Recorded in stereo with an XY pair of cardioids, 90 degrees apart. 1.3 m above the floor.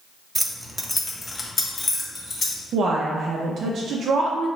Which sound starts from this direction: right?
A woman speaking, at 2.7 s.